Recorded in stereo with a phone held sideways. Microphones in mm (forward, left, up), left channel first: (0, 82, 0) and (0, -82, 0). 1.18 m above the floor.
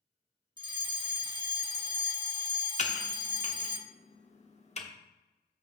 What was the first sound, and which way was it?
A fire alarm, 25° right (ahead or behind).